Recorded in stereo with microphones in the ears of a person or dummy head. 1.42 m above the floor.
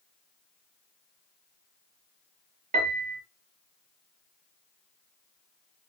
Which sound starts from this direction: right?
A piano, at 2.7 s.